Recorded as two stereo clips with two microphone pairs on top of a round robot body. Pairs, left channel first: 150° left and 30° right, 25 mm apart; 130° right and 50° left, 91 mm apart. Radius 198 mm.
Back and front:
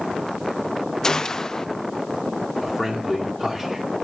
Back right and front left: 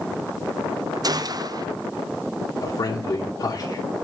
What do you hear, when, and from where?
1.0 s a gunshot: 90° left, 0.8 m
2.6 s a man speaking: 120° right, 2.5 m